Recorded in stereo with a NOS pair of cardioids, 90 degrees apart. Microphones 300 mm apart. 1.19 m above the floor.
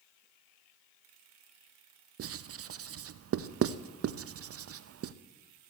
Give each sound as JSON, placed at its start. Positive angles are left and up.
{"t": 2.2, "sound": "writing", "azimuth_deg": -50, "distance_m": 0.7}